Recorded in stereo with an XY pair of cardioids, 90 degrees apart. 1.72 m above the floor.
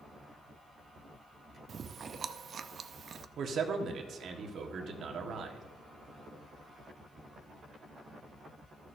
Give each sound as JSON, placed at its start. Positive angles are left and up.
{"t": 1.7, "sound": "chewing", "azimuth_deg": -50, "distance_m": 0.5}
{"t": 3.4, "sound": "a man speaking", "azimuth_deg": -65, "distance_m": 1.4}